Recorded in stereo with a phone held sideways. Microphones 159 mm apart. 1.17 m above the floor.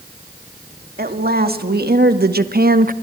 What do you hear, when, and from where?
1.0 s a woman speaking: 75° right (ahead or behind), 2.5 m; by 2.9 s 60° right (ahead or behind), 0.9 m